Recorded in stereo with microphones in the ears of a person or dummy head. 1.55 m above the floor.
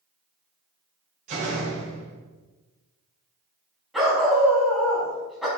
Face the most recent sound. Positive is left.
turn(degrees=0)  # may be behind; listen again after turning